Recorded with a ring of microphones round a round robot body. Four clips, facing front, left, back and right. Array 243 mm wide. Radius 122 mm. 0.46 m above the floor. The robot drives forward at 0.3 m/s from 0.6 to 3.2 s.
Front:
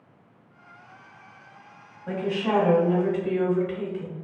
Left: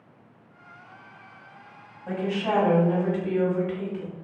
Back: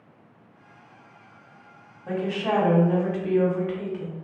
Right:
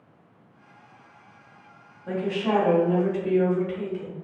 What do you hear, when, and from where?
2.1 s a woman speaking: 155° left, 1.3 m; by 4.2 s 165° left, 1.4 m